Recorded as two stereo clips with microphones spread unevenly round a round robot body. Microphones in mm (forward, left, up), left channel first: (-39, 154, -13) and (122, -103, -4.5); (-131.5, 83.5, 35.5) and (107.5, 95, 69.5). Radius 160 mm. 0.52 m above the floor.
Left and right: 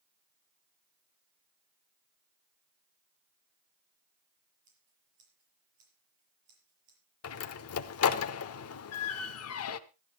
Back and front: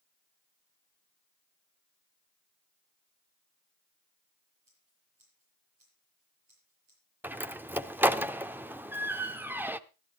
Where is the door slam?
90° left, 0.8 m.